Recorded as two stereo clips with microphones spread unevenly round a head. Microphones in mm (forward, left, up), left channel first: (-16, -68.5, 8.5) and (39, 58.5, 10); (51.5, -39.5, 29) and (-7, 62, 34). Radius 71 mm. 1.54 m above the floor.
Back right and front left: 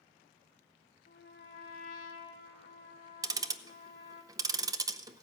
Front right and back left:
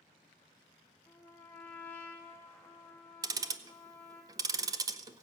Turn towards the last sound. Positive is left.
turn(degrees=100)